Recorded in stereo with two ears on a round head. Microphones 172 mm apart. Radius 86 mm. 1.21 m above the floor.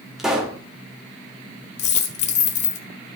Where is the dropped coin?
40° left (ahead or behind), 1.4 m.